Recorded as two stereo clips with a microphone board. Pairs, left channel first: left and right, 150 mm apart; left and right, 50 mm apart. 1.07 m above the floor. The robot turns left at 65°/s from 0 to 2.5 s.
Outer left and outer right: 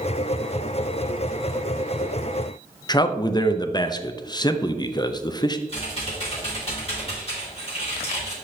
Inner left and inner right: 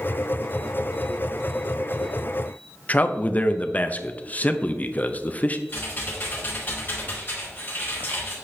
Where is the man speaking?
30° left (ahead or behind), 0.6 m.